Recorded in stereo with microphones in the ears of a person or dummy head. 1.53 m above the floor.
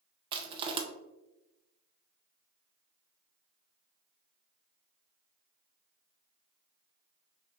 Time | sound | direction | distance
0.3 | crushing | 30° right (ahead or behind) | 0.6 m